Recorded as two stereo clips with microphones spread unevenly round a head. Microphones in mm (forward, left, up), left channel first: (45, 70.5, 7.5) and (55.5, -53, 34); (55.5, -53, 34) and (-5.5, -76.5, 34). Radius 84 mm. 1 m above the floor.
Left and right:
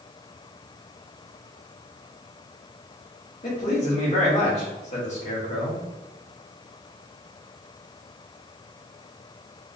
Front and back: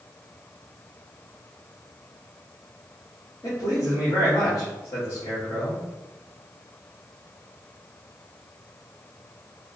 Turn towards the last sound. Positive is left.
turn(degrees=75)